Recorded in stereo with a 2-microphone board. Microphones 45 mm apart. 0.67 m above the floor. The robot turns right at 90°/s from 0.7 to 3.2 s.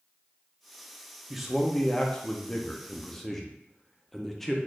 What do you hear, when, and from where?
1.3 s a man speaking: 5° right (ahead or behind), 0.5 m; by 4.6 s 10° left (ahead or behind), 0.5 m